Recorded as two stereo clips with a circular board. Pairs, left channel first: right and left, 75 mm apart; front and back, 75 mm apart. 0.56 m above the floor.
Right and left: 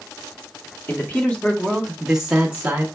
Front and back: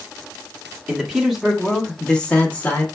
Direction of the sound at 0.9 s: 115° right.